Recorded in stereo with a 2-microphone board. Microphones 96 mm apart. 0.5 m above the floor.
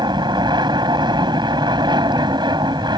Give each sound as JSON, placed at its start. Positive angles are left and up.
{"t": 0.0, "sound": "an aircraft", "side_deg": -50}